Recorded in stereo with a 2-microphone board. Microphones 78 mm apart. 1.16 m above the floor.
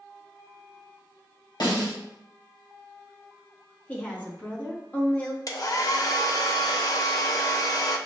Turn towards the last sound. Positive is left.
turn(degrees=50)  # may be behind; listen again after turning